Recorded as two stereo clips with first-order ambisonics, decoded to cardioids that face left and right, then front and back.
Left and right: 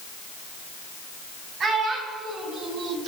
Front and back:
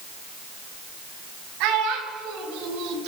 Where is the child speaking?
155° right, 2.5 m; by 3.1 s 150° right, 1.2 m.